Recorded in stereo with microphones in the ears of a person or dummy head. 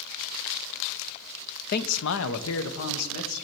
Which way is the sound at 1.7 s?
50° left (ahead or behind).